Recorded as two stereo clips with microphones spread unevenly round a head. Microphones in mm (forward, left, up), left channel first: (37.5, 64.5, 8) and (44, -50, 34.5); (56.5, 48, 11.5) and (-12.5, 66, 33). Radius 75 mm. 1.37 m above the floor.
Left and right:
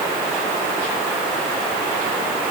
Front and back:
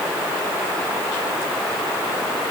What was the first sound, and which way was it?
Only background noise.